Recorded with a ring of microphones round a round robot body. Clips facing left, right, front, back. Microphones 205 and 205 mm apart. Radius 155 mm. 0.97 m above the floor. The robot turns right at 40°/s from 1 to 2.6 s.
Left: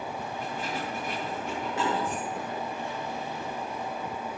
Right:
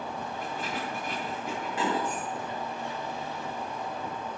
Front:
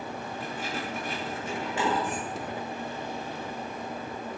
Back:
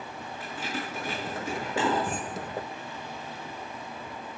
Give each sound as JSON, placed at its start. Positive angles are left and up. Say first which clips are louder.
{"t": 0.4, "sound": "keys jangling", "louder": "left 1 dB, back 1 dB", "azimuth_deg": 170, "distance_m": 8.5}